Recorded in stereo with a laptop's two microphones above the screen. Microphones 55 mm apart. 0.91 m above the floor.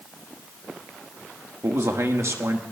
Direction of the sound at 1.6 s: 65° right (ahead or behind).